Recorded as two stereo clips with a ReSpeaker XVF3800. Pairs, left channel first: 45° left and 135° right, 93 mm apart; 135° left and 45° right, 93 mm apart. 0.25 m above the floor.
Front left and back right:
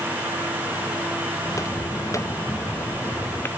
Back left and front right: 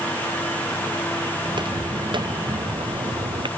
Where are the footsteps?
10° right; by 3.5 s 20° right.